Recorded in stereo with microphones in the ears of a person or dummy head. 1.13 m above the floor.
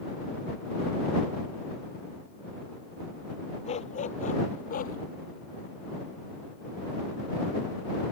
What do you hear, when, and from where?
3.6 s a dog barking: 40° left (ahead or behind); by 5.0 s 50° left (ahead or behind)